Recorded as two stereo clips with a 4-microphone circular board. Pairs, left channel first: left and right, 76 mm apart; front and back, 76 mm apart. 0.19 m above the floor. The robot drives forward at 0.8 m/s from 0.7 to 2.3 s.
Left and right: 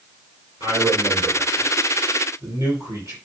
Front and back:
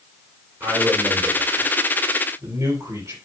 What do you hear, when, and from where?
0.6 s a man speaking: 130° right, 4 m; by 3.1 s 140° right, 5 m